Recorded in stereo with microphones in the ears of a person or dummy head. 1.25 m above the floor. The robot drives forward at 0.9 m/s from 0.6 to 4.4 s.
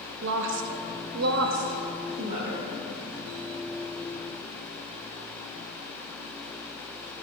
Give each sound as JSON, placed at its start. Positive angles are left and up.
{"t": 0.2, "sound": "a woman speaking", "side_deg": -65, "distance_m": 0.9}